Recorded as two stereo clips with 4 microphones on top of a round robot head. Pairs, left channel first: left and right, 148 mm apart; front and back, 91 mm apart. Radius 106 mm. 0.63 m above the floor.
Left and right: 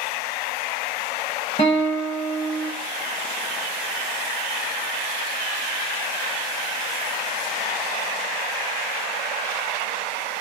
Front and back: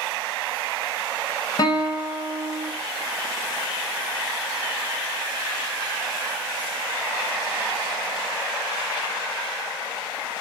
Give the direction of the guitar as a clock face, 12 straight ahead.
11 o'clock.